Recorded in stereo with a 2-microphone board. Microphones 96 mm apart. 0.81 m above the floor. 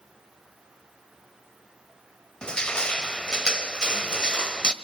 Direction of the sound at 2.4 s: 10° left (ahead or behind).